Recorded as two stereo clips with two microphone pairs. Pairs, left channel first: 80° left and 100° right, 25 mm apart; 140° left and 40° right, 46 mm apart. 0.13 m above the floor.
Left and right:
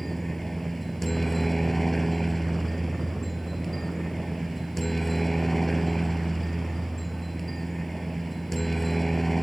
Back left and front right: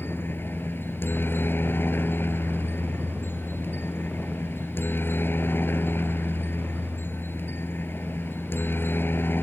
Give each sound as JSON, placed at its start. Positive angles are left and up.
{"t": 0.0, "sound": "a helicopter", "azimuth_deg": 160}